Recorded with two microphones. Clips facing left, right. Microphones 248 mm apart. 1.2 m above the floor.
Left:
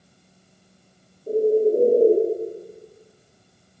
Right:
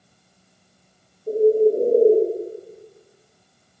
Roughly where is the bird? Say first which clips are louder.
Right 2 dB; centre.